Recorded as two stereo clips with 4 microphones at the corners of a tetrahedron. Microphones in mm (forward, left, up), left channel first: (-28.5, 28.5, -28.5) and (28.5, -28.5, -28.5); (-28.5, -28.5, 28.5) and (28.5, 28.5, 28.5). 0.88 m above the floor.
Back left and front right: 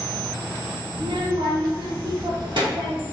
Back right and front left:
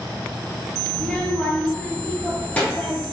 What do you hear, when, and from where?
0.9 s a child speaking: 55° right, 0.8 m; by 3.0 s 65° right, 1.9 m